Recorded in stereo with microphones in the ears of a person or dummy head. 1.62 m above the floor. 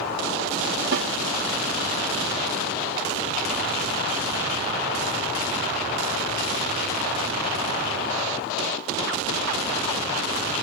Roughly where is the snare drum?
Right.